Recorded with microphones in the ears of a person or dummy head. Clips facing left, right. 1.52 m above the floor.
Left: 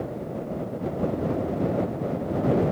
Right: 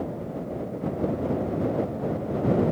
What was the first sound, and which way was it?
Only background noise.